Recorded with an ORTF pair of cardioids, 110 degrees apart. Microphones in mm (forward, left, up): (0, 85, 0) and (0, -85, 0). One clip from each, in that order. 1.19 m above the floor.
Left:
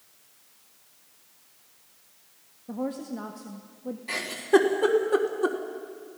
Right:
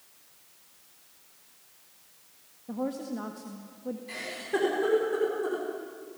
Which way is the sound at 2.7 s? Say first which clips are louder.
Left 1 dB; 10° left.